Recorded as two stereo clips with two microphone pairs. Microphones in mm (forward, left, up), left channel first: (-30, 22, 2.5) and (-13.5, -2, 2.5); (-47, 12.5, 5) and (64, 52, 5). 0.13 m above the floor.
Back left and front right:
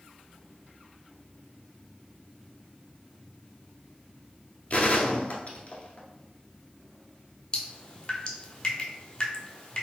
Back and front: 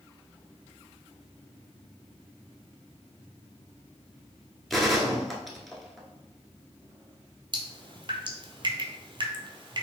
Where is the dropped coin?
No dropped coin in this recording.